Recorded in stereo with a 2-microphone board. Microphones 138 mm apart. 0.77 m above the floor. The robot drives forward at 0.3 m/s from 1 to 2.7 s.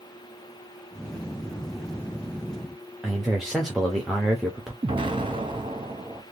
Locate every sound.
3.0 s a man speaking: centre (ahead or behind), 0.7 m
4.8 s an explosion: 35° right (ahead or behind), 0.7 m